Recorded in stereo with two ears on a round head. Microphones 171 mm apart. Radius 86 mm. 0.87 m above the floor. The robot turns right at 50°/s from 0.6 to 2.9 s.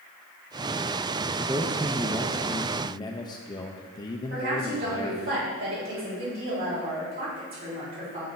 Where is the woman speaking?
65° right (ahead or behind), 3.5 m.